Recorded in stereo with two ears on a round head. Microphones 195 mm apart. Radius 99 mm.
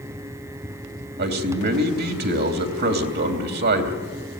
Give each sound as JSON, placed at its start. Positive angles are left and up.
{"t": 1.2, "sound": "a man speaking", "side_deg": -50, "distance_m": 3.0}